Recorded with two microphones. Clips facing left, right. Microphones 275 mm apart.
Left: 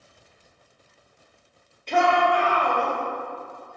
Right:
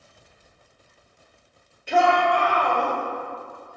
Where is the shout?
5° right (ahead or behind), 1.5 m; by 2.9 s 10° left (ahead or behind), 2.0 m.